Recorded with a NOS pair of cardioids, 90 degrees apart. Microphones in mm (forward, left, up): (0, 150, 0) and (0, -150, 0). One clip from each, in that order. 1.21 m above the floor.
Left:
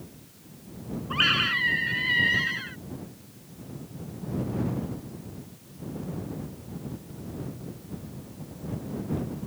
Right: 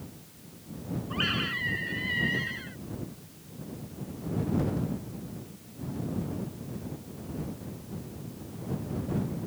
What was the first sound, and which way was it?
A scream, 55° left.